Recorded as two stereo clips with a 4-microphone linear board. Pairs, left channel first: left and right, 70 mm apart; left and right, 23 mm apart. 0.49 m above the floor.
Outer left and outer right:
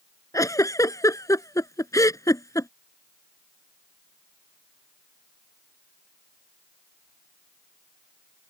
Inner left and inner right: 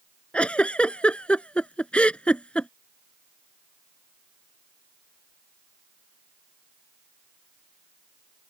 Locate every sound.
0.3 s a giggle: 55° left (ahead or behind)